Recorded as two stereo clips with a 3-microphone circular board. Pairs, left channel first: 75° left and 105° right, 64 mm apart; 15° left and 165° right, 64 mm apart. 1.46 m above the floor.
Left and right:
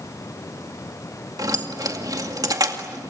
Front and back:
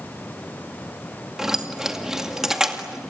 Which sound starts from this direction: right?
Keys jangling, at 1.4 s.